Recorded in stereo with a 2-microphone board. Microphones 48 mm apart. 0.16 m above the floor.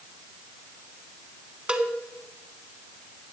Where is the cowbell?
25° right (ahead or behind), 1.0 m.